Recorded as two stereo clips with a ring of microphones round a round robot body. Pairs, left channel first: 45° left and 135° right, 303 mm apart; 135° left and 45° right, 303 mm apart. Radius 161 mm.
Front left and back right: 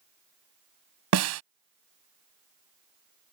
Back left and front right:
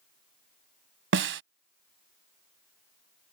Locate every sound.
1.1 s a snare drum: 95° right